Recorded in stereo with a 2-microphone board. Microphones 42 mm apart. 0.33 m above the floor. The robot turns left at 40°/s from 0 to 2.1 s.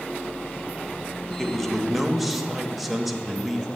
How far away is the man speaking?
About 0.9 m.